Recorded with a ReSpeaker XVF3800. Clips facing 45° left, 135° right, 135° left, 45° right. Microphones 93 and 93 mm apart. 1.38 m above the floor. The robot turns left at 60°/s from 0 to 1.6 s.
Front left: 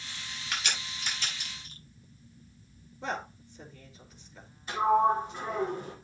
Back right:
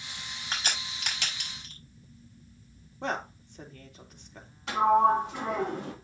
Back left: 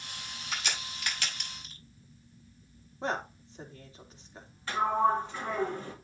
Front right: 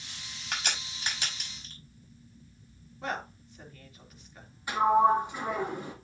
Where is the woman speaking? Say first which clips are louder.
Back right 3 dB, back left 2 dB; 165° right, 3 m.